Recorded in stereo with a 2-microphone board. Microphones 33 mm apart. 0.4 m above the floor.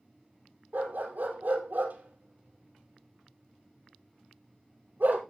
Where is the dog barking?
60° right (ahead or behind), 2.5 m.